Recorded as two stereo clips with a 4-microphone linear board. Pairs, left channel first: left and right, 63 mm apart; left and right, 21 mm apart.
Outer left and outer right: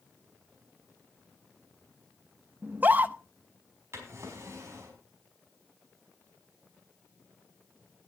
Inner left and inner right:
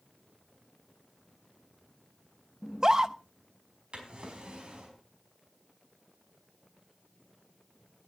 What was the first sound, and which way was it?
A scream, 30° right (ahead or behind).